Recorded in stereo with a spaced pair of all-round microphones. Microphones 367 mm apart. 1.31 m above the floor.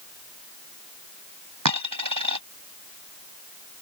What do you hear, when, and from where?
1.6 s a dropped coin: 55° right (ahead or behind)